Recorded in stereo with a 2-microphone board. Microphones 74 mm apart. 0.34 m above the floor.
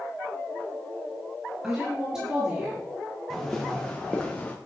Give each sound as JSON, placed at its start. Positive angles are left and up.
{"t": 1.6, "sound": "a woman speaking", "side_deg": -10, "distance_m": 5.0}
{"t": 3.3, "sound": "footsteps", "side_deg": 5, "distance_m": 3.0}